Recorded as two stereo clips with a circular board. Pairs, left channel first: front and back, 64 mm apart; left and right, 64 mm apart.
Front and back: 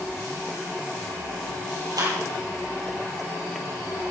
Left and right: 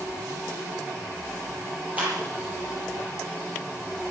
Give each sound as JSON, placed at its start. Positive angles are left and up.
{"t": 2.0, "sound": "a clap", "azimuth_deg": -155, "distance_m": 8.5}